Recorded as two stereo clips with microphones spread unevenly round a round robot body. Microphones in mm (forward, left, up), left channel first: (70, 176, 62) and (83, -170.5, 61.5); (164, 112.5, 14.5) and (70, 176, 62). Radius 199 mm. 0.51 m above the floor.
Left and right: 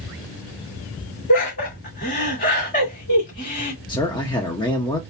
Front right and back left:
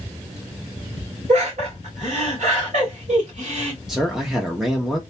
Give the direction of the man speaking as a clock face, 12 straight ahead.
11 o'clock.